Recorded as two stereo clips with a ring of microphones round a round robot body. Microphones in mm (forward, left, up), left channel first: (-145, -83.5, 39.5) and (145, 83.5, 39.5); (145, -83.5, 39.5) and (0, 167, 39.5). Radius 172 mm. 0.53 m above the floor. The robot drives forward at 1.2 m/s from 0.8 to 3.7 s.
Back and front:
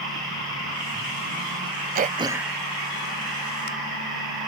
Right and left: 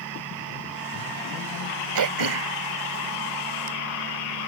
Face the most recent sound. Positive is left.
turn(degrees=150)